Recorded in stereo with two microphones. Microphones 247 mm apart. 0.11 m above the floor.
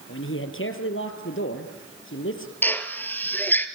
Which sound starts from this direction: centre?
A drill, at 2.6 s.